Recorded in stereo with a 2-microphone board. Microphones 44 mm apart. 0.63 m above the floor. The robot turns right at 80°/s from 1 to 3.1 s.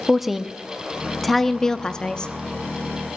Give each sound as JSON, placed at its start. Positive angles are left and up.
{"t": 0.1, "sound": "a woman speaking", "side_deg": -5, "distance_m": 0.6}